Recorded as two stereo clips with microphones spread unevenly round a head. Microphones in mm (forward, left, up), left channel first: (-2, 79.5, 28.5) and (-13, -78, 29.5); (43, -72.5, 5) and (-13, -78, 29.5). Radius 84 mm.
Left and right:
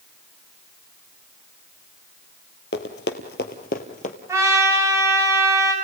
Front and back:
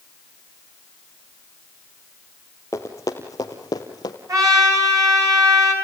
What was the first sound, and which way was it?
Running footsteps, 90° left.